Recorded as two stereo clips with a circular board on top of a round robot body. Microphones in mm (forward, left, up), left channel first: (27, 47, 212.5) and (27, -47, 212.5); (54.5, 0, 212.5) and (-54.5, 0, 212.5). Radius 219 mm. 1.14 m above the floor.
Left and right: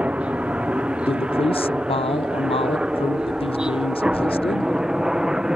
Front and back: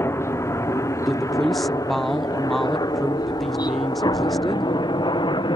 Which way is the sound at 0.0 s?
30° right.